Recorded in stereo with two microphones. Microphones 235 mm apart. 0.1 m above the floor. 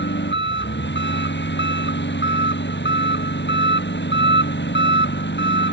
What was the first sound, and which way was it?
An engine running, 55° left (ahead or behind).